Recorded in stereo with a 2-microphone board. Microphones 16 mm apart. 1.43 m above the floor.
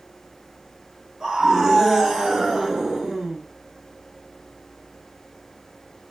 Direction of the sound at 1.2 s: 55° right (ahead or behind).